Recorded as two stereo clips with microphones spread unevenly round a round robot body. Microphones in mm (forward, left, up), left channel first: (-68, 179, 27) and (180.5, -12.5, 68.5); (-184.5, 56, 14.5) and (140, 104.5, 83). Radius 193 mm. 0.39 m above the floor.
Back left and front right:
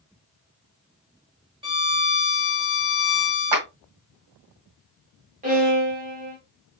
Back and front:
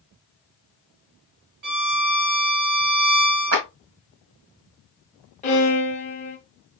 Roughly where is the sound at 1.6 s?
Ahead left.